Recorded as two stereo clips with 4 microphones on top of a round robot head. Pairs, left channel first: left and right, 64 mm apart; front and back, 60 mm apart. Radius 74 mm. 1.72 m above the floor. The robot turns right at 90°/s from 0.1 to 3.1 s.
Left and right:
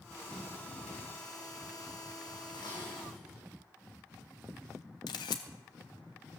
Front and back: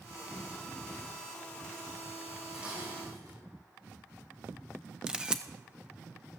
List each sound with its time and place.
2.5 s dishes clattering: 110° left, 4.5 m; by 3.4 s 160° left, 4.5 m
5.1 s a camera shutter: 105° left, 0.7 m